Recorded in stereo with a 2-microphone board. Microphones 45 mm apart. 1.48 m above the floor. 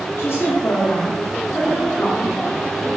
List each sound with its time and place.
0.2 s a woman speaking: 70° left (ahead or behind), 0.8 m; by 2.9 s 35° left (ahead or behind), 1.7 m